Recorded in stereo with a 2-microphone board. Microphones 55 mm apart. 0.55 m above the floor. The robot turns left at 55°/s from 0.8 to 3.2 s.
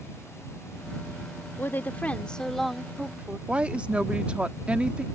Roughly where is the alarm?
I don't hear an alarm.